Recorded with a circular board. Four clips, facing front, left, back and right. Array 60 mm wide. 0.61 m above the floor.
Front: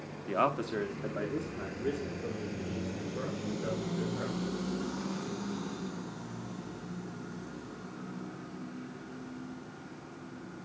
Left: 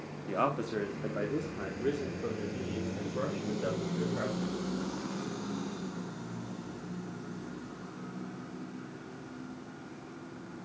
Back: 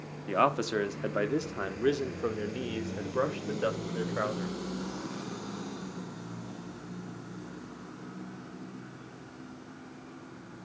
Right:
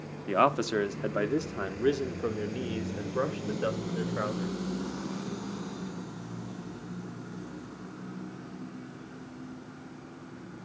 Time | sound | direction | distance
0.3 | a man speaking | 115° right | 1.1 m